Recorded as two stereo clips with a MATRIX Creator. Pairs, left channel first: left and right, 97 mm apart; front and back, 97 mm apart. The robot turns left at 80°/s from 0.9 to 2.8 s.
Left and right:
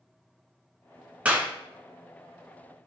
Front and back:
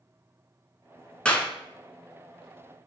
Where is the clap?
50° right, 1.2 m; by 1.5 s 70° right, 1.2 m.